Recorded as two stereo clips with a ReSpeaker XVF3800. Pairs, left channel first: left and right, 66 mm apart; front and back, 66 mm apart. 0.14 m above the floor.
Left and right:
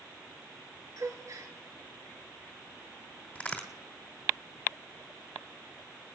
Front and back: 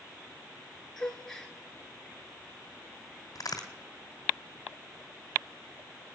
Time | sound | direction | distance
1.0 | a gasp | 80° right | 1.4 m
3.4 | a crack | 20° left | 2 m